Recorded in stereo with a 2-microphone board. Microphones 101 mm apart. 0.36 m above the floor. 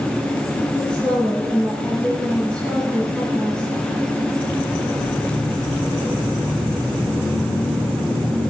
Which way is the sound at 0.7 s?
10° left (ahead or behind).